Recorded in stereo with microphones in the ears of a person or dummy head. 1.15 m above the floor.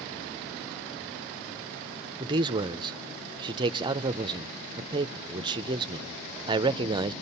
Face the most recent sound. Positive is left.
turn(degrees=-25)  # may be behind; listen again after turning